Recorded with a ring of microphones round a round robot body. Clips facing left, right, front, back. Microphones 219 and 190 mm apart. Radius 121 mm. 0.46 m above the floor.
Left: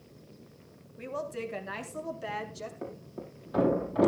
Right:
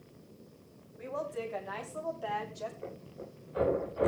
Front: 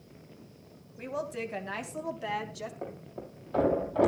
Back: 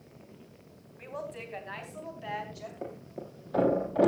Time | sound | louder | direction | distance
1.0 | a woman speaking | left 1 dB, front 5 dB | 40° left | 3 m
2.8 | a thud | left 3 dB, even | 105° left | 7 m